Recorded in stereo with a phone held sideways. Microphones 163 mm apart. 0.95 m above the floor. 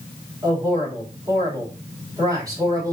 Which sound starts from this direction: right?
A man speaking, at 0.4 s.